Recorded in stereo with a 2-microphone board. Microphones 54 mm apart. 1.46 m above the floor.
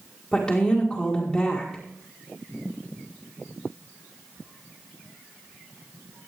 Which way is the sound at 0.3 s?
10° left (ahead or behind).